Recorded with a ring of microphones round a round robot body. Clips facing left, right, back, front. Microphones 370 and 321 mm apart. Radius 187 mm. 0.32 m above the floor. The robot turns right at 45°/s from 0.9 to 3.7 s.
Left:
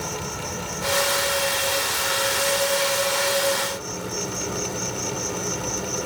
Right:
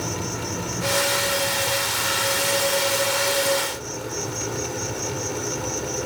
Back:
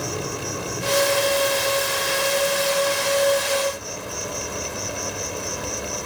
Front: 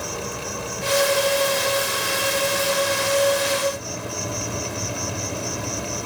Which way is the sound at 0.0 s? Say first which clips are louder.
Right 3 dB, back 2 dB; 120° right.